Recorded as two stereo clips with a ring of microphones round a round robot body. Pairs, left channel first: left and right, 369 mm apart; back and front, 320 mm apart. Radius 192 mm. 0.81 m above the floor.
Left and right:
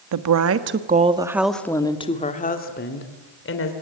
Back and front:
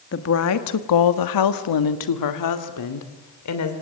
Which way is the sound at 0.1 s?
125° right.